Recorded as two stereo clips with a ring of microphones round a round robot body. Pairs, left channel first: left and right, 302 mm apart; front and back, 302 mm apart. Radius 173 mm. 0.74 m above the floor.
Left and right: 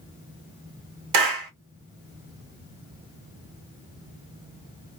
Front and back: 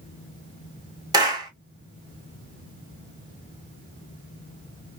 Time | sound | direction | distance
1.1 | a clap | 105° right | 1.2 m